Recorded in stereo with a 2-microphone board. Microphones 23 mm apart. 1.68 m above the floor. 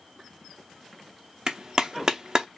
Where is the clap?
35° right (ahead or behind), 0.7 m.